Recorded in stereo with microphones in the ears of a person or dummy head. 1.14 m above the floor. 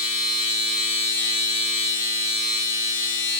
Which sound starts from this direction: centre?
A machine running, at 0.0 s.